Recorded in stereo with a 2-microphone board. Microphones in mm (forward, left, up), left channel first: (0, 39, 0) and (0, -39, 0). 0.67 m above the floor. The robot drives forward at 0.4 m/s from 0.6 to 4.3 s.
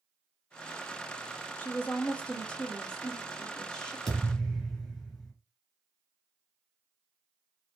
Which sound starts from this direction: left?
A woman speaking, at 1.6 s.